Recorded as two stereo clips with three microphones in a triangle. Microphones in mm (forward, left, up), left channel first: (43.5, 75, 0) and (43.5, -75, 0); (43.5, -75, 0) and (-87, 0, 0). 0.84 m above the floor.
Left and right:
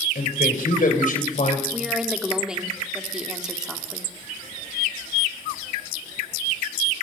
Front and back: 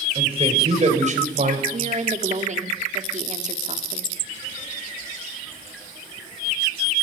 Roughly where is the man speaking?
Left.